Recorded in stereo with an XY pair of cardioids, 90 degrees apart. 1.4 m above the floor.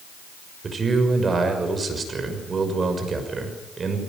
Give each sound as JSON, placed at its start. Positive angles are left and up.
{"t": 0.6, "sound": "a man speaking", "azimuth_deg": -40, "distance_m": 6.0}